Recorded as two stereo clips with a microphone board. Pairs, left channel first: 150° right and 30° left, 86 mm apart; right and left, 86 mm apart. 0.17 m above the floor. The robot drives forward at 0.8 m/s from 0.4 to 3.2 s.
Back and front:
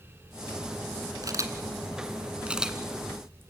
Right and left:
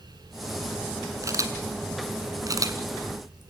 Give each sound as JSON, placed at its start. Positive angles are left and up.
{"t": 1.2, "sound": "a camera shutter", "azimuth_deg": 55, "distance_m": 1.8}